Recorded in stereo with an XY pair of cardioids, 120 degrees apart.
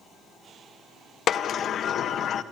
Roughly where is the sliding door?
Ahead left.